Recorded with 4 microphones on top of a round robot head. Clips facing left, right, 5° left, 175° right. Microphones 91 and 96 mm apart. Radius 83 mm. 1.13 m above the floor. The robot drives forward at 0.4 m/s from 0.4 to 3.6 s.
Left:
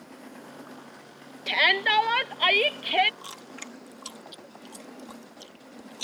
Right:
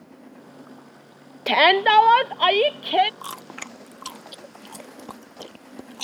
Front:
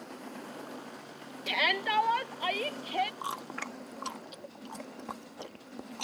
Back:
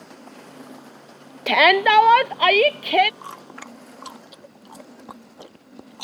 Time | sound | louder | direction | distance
1.5 | a shout | right 9 dB, back 16 dB | 135° right | ?
3.2 | chewing | right 6 dB, even | 65° right | ?